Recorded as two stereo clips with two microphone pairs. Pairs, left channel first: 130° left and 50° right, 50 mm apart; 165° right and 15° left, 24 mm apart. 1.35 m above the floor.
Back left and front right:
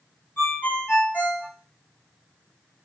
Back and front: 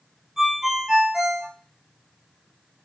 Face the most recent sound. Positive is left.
turn(degrees=85)